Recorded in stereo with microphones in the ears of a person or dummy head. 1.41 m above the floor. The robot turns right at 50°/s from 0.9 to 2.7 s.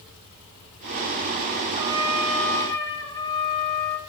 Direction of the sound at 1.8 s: 25° right.